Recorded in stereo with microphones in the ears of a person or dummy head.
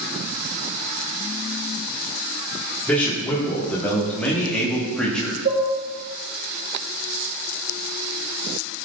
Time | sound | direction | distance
2.9 | a man speaking | 10° left (ahead or behind) | 3.5 m
5.5 | dishes clattering | 55° right (ahead or behind) | 2.5 m